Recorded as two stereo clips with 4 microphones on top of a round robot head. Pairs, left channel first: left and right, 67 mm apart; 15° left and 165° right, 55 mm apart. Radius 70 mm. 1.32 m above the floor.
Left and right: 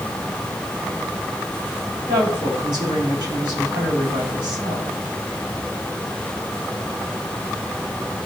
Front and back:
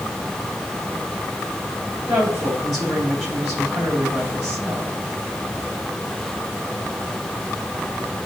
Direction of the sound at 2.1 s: 80° right.